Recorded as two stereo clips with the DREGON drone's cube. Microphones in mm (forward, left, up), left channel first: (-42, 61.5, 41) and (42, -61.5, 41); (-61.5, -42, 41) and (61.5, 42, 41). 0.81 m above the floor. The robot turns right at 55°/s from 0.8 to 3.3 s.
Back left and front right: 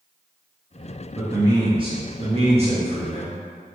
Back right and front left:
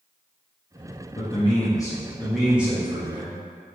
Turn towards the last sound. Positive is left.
turn(degrees=-5)